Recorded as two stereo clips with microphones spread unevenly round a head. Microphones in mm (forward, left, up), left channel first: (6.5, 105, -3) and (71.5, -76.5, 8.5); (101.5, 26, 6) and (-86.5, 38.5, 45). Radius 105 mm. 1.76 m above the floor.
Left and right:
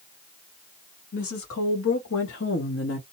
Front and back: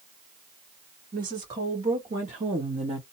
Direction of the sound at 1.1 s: 125° left.